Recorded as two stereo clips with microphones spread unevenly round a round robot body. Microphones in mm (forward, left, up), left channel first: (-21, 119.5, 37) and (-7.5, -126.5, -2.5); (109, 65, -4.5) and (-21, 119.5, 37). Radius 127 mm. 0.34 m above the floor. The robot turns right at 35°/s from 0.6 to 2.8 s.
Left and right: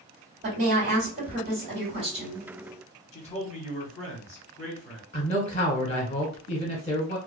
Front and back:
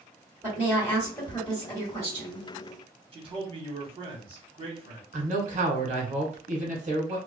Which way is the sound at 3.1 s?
135° left.